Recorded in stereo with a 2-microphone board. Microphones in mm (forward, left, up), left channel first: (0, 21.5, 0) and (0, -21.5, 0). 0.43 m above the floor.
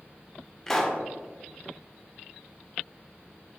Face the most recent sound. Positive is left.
turn(degrees=10)  # may be behind; listen again after turning